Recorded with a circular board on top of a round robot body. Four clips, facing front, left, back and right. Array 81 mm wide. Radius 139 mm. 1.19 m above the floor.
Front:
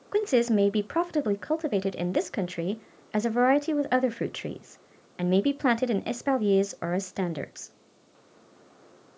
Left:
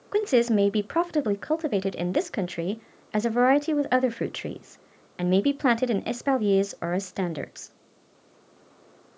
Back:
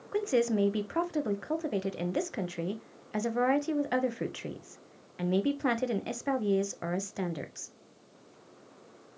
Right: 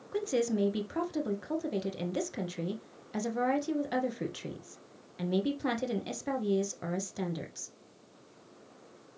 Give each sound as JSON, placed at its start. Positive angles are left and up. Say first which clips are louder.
{"t": 0.1, "sound": "a woman speaking", "louder": "left 9 dB, front 4 dB", "azimuth_deg": 65, "distance_m": 0.5}